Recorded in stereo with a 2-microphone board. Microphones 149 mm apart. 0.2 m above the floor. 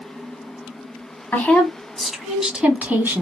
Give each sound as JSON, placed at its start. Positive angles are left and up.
{"t": 1.3, "sound": "a woman speaking", "side_deg": 10, "distance_m": 1.7}